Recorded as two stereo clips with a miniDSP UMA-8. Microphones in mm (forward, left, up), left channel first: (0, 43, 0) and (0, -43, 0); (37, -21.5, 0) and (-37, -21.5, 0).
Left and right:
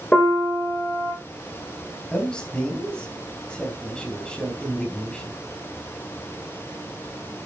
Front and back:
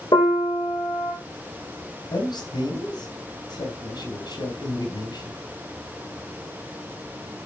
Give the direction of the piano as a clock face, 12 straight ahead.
11 o'clock.